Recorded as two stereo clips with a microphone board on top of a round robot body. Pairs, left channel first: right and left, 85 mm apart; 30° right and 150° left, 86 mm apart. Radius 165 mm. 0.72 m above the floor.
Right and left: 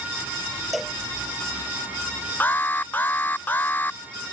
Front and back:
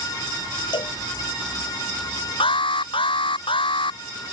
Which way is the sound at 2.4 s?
20° right.